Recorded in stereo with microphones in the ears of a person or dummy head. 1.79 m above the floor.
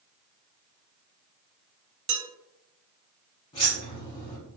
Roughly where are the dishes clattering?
Right.